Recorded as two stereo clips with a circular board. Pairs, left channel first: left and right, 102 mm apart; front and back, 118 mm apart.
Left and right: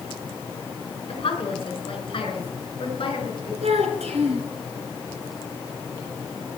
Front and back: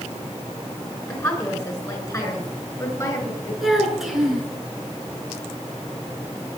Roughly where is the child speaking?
Right.